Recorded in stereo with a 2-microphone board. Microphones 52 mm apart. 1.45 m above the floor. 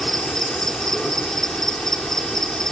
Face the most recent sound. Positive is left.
turn(degrees=10)  # may be behind; listen again after turning